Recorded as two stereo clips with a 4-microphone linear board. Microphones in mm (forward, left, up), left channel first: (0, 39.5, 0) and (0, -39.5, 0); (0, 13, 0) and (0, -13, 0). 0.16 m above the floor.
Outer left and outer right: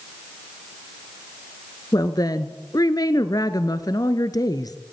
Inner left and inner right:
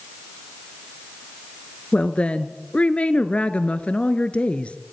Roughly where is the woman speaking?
Left.